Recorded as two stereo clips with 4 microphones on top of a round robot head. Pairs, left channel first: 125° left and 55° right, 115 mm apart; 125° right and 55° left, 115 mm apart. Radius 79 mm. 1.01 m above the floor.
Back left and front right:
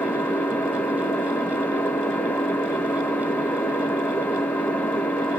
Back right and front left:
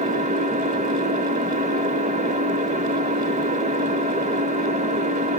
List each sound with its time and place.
0.0 s an engine running: 50° left, 0.8 m